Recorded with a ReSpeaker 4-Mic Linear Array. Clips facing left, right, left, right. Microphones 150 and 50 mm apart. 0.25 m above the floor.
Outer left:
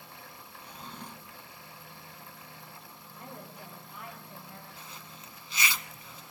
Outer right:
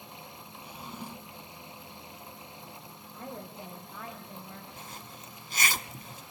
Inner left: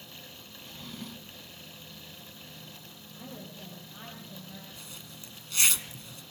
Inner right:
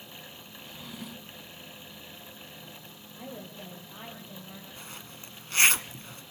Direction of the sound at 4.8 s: 50° right (ahead or behind).